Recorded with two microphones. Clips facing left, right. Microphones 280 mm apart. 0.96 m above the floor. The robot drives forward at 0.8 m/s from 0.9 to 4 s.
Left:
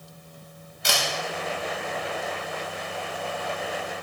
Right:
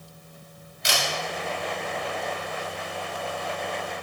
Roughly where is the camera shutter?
Left.